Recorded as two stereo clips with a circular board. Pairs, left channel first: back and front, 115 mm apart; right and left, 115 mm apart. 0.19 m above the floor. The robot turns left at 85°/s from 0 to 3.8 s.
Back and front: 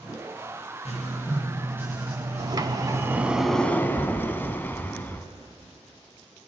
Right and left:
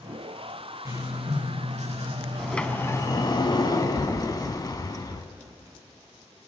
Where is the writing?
155° left, 5.5 m; by 3.4 s 65° right, 5.5 m.